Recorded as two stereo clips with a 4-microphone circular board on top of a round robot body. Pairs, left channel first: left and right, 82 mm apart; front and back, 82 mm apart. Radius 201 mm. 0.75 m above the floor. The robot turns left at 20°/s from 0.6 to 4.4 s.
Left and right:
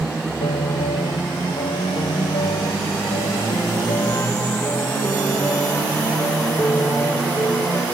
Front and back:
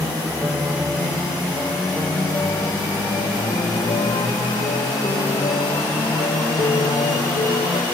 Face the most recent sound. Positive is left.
turn(degrees=25)